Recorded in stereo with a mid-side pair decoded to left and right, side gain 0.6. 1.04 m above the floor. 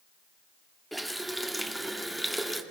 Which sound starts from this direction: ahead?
A running tap, at 0.9 s.